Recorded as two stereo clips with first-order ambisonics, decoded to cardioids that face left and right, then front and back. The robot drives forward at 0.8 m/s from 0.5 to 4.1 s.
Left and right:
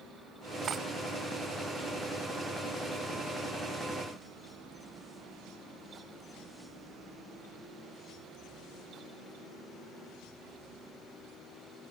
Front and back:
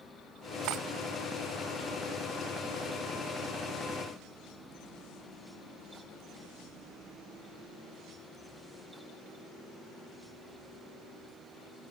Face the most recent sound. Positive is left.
turn(degrees=-170)